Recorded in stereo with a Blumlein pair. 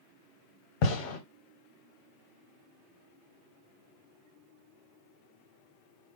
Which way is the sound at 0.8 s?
40° left.